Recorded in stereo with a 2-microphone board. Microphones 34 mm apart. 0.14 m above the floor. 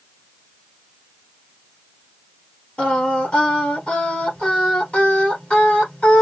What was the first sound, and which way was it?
Singing, 35° left (ahead or behind).